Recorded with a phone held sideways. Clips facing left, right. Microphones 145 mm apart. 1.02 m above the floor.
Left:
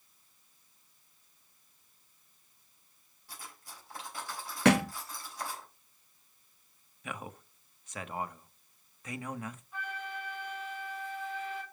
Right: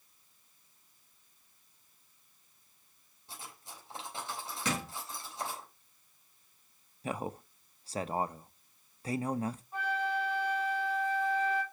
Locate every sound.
3.3 s cutlery clinking: 25° right (ahead or behind), 3.5 m
4.7 s a thud: 65° left (ahead or behind), 0.6 m
7.0 s a man speaking: 30° right (ahead or behind), 0.8 m
9.7 s a flute: 35° right (ahead or behind), 4.5 m